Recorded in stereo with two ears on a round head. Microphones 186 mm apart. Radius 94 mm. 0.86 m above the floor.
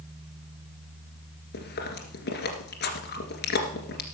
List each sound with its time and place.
1.5 s chewing: 55° left (ahead or behind), 2 m